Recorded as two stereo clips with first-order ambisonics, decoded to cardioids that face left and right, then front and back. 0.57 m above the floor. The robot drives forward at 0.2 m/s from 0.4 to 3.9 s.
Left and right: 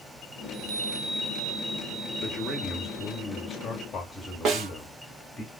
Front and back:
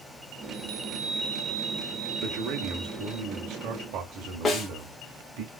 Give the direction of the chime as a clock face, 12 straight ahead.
5 o'clock.